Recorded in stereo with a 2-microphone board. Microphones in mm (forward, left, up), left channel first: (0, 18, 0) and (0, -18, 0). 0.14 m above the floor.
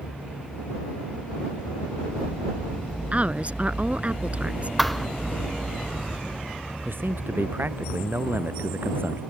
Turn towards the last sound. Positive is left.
turn(degrees=-85)